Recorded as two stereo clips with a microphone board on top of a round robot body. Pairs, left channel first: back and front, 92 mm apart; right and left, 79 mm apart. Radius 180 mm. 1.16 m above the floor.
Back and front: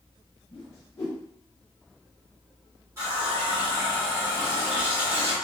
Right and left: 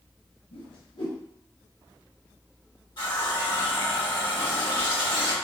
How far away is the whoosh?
About 0.6 m.